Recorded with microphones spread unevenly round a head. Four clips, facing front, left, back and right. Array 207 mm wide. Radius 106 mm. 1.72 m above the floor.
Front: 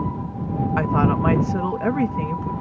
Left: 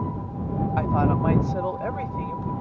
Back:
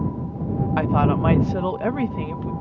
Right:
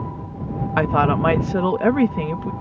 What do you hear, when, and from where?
0.8 s a woman speaking: 80° right